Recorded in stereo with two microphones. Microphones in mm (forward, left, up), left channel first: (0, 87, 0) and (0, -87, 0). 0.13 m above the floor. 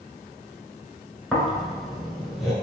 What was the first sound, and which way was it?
Snoring, centre (ahead or behind).